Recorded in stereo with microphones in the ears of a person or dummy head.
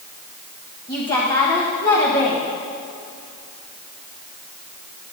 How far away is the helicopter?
No helicopter in this recording.